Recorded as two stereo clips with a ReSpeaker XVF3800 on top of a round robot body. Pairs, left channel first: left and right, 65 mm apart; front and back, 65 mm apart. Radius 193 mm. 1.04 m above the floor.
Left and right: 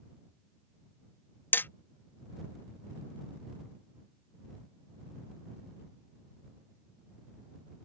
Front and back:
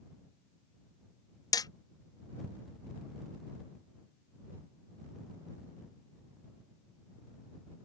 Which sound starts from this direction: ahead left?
Hammering, at 1.5 s.